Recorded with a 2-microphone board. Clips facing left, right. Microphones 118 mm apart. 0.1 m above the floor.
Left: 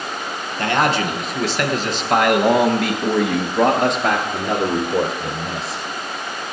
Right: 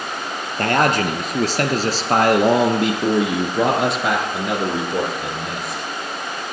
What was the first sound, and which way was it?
A man speaking, 50° right (ahead or behind).